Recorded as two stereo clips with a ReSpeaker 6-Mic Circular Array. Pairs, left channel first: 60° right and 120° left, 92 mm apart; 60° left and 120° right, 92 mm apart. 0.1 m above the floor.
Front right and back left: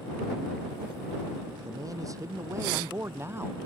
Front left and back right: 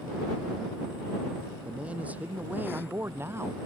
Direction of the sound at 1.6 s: 165° left.